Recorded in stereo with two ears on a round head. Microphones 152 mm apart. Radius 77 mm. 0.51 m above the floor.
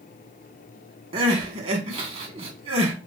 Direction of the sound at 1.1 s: 40° right (ahead or behind).